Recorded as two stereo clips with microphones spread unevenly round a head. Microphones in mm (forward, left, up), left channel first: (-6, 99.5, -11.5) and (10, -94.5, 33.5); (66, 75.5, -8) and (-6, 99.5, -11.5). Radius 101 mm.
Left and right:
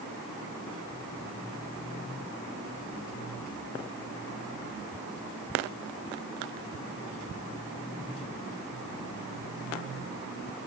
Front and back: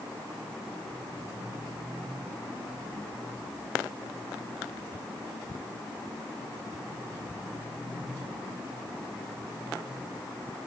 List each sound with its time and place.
Only background noise.